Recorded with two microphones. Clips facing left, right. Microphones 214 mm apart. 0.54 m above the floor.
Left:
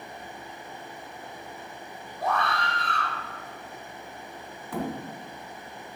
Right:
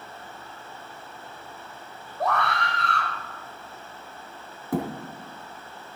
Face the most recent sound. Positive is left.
turn(degrees=-45)  # may be behind; listen again after turning